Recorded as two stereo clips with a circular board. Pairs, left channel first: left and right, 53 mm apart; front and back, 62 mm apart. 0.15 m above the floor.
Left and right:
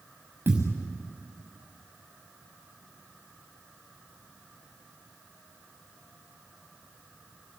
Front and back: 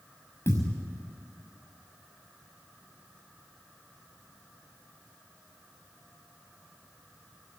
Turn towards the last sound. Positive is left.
turn(degrees=-45)